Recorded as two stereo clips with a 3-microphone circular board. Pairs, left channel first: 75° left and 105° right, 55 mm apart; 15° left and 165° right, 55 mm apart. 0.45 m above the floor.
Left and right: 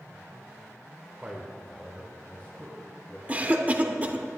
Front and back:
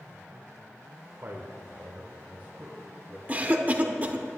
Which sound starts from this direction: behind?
A man speaking, at 1.2 s.